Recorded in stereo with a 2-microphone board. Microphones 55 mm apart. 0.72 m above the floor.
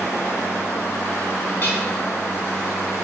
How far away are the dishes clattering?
About 5 m.